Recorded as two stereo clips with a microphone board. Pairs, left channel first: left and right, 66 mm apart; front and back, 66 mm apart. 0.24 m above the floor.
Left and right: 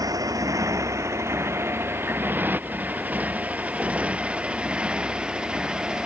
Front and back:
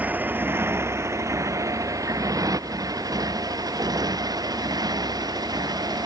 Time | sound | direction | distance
0.0 | a motorcycle | 110° right | ?